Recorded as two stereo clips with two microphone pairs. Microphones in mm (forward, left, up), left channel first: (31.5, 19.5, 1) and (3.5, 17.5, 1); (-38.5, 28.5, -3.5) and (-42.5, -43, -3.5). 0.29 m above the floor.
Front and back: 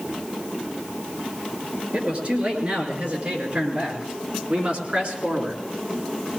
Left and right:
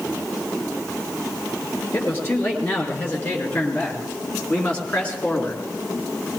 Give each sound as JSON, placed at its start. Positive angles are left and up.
{"t": 1.9, "sound": "a man speaking", "azimuth_deg": 150, "distance_m": 5.5}